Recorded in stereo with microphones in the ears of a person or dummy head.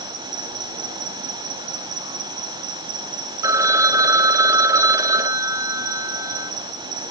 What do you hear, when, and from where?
0.0 s an insect: 30° right (ahead or behind), 1.6 m
3.4 s a phone ringing: 10° right (ahead or behind), 0.9 m